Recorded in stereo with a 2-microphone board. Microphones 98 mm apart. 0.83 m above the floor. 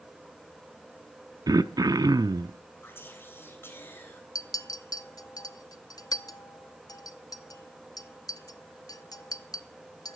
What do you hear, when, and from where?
1.5 s throat clearing: 40° right (ahead or behind), 0.6 m
2.8 s whispering: 25° left (ahead or behind), 3.5 m
4.3 s a clink: 40° left (ahead or behind), 0.6 m